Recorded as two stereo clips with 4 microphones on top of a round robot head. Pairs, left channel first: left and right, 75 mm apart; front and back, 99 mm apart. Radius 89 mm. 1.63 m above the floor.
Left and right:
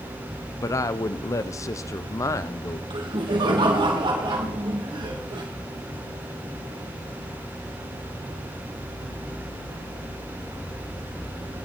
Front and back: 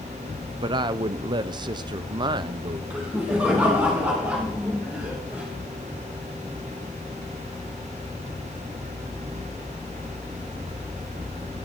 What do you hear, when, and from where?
0.6 s a woman speaking: 135° left, 0.6 m
2.9 s laughter: 105° right, 2.5 m